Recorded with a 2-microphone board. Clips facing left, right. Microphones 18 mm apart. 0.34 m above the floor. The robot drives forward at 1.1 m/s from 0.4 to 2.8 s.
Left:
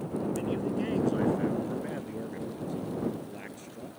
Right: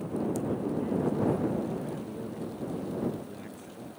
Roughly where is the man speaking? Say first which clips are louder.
Even; left.